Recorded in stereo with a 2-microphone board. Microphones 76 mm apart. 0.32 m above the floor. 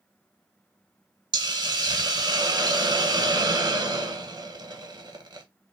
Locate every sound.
1.3 s a hiss: 65° right (ahead or behind), 0.6 m